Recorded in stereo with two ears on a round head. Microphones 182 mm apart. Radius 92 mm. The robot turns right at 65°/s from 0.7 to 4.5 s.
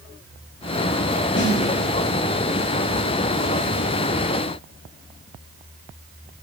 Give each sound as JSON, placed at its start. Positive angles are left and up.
{"t": 1.4, "sound": "a snare drum", "side_deg": 60, "distance_m": 1.8}